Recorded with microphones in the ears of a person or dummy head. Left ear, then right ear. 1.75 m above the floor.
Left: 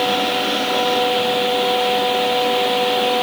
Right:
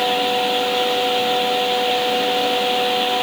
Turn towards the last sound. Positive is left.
No sound to turn to.